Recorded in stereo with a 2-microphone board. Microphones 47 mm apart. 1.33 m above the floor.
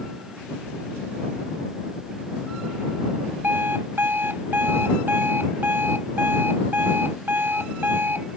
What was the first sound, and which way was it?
An alarm clock, 50° right (ahead or behind).